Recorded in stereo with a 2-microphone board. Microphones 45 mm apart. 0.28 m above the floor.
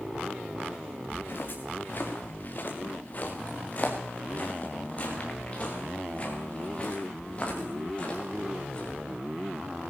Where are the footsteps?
50° left (ahead or behind), 2.5 m; by 9.0 s 25° left (ahead or behind), 6 m.